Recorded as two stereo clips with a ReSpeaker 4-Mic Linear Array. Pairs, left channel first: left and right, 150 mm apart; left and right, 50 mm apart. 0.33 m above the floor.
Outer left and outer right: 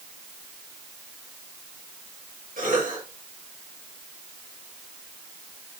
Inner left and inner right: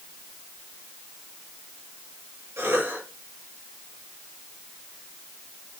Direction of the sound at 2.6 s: 80° right.